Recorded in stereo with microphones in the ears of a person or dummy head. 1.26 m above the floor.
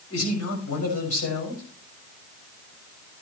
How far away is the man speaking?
About 5.5 m.